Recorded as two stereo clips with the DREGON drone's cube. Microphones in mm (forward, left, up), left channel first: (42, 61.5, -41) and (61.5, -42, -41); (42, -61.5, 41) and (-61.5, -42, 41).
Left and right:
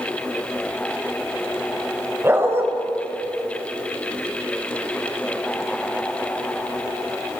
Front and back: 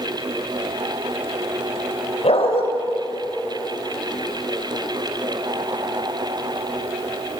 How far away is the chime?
I don't hear a chime.